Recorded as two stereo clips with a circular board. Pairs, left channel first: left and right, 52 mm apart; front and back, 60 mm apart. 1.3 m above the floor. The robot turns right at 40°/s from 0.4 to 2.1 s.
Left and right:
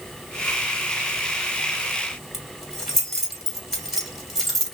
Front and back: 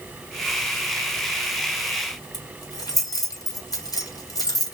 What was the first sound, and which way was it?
Keys jangling, 5° right.